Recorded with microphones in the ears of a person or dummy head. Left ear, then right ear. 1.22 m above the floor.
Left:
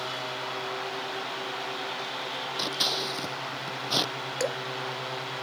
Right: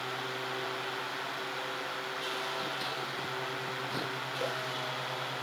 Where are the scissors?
55° left (ahead or behind).